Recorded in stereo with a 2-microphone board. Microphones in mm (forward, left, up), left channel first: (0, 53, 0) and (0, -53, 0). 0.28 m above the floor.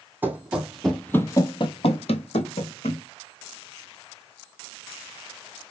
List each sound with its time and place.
0.2 s running footsteps: 20° right (ahead or behind), 0.8 m; by 3.0 s 75° left (ahead or behind), 1.0 m